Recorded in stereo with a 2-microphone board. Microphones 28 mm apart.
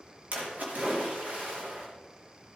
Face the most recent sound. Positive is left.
turn(degrees=-60)  # may be behind; listen again after turning